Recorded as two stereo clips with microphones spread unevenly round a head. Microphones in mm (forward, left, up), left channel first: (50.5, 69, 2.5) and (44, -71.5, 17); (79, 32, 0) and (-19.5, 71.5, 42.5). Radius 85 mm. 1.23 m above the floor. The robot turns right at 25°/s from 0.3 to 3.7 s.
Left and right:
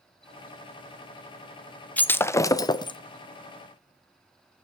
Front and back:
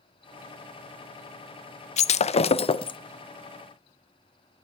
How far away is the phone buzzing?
No phone buzzing in this recording.